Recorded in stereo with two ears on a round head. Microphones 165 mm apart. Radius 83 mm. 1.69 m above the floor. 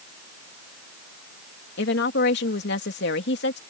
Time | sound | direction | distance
1.8 | a woman speaking | 65° left (ahead or behind) | ?